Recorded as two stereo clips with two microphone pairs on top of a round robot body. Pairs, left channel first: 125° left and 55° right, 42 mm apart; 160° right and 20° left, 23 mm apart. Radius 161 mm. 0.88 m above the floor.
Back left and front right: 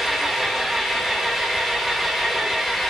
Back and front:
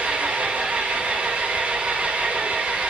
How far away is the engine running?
About 3 m.